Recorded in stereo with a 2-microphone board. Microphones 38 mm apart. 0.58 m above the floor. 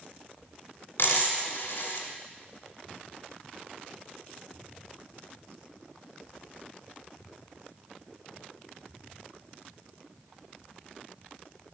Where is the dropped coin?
60° left (ahead or behind), 1.9 m.